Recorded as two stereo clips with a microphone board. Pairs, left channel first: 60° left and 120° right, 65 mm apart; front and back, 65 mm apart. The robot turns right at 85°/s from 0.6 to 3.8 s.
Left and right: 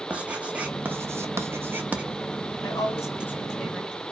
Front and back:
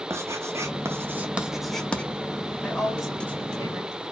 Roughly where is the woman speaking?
Ahead left.